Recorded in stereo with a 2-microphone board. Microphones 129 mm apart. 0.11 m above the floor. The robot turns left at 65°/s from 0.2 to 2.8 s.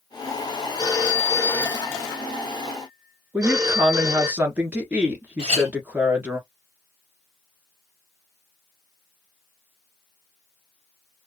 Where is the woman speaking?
10° right (ahead or behind), 1.2 m.